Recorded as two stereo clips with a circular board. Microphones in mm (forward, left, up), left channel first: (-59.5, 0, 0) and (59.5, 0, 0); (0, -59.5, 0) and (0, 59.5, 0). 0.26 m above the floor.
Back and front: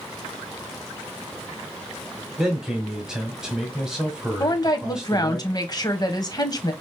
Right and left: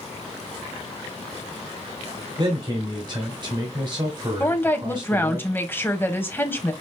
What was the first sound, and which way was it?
A man speaking, 80° left.